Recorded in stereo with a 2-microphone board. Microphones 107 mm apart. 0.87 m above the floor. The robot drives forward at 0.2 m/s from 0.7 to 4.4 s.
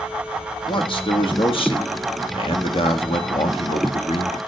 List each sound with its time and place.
0.7 s a man speaking: 50° left (ahead or behind), 1.6 m; by 4.4 s 65° left (ahead or behind), 1.3 m